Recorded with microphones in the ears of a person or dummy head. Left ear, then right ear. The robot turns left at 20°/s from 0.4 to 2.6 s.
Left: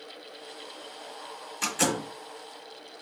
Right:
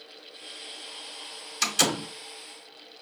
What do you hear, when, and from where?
1.6 s a door slam: 45° right (ahead or behind), 2.5 m; by 2.1 s 55° right (ahead or behind), 2.5 m